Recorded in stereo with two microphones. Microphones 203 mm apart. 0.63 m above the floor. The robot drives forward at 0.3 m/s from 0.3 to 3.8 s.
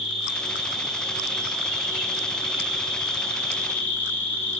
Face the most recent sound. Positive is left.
turn(degrees=10)  # may be behind; listen again after turning